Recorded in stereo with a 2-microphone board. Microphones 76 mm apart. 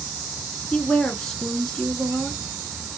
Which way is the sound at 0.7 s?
10° left (ahead or behind).